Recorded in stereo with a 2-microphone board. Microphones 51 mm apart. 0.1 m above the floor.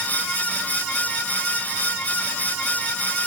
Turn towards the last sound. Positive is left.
No sound to turn to.